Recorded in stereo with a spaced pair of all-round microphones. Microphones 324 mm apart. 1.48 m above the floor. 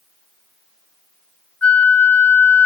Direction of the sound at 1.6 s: 50° left (ahead or behind).